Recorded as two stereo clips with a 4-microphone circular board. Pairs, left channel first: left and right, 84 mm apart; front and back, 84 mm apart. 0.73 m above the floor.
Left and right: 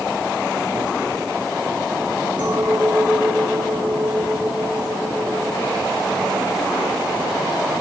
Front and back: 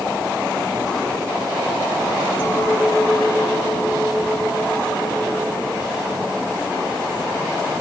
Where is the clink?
65° right, 7 m.